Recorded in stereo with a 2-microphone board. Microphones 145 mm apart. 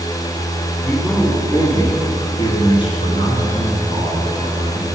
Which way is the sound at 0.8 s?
15° left (ahead or behind).